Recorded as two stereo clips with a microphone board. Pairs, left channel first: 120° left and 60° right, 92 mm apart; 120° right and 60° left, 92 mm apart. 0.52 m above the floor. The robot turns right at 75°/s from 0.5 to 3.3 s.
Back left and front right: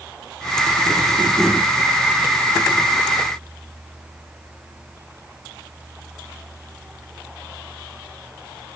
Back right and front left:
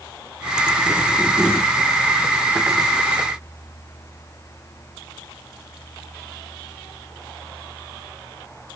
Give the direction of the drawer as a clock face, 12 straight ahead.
No drawer in this recording.